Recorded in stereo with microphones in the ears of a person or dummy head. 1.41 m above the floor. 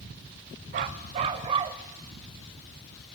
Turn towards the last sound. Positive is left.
turn(degrees=-30)  # may be behind; listen again after turning